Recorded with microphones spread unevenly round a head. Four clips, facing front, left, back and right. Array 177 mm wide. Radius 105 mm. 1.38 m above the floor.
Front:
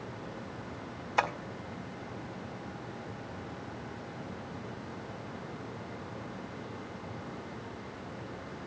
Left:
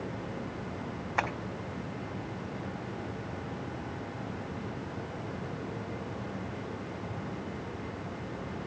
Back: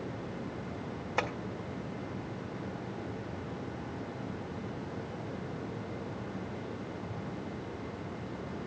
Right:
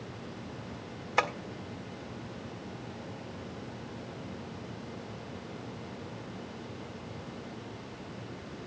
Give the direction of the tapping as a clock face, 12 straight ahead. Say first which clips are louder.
Right 3 dB, front 4 dB; 5 o'clock.